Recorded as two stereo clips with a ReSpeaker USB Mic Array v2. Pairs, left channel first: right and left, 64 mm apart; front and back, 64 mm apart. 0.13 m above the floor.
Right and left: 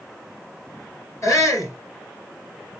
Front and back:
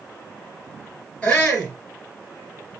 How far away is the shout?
About 3 m.